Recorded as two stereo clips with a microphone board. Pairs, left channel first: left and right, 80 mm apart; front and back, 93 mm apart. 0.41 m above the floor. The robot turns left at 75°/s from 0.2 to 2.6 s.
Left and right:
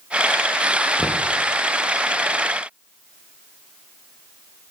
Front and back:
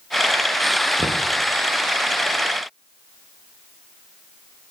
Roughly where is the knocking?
Behind.